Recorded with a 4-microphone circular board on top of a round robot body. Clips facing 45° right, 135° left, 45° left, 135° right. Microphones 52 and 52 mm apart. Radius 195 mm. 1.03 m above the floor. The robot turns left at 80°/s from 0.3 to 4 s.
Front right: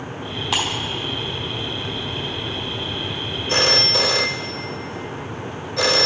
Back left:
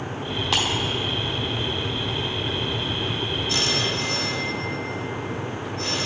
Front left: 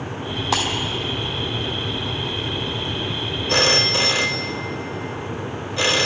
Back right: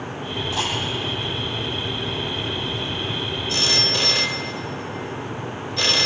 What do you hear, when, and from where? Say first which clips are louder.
0.5 s breaking glass: front right 1 dB, front left 5 dB; 40° left, 1.8 m; by 0.7 s 30° left, 1.8 m
3.5 s a phone ringing: front right 8 dB, front left 6 dB; 10° left, 0.7 m; by 6.1 s 30° right, 0.7 m